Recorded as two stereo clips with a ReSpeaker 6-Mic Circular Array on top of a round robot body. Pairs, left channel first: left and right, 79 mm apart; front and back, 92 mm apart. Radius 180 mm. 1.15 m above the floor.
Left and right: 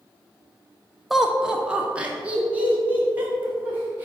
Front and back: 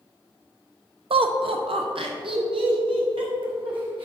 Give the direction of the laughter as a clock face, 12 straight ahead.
6 o'clock.